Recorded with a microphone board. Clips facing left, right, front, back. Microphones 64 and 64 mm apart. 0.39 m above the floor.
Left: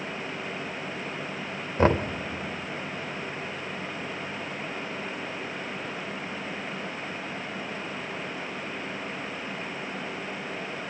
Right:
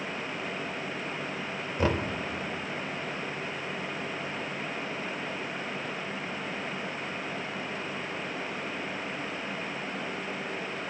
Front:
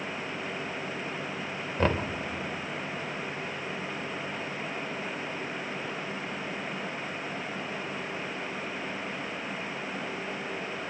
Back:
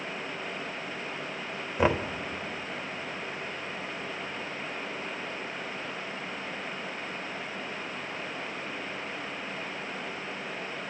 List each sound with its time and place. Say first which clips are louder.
1.8 s knocking: left 6 dB, back 2 dB; 105° left, 0.9 m